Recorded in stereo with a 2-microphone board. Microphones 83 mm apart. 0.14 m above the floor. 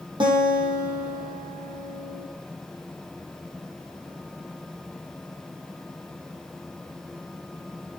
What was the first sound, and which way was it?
A guitar, 80° right.